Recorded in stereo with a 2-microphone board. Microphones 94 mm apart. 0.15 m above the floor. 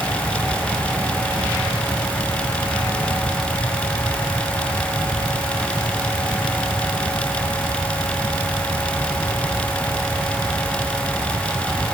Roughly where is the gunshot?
No gunshot in this recording.